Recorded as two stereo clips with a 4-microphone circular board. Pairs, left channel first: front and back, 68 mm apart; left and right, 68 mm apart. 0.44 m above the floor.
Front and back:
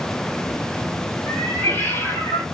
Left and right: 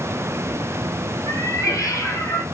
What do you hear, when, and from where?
1.3 s a cat meowing: 55° left, 0.9 m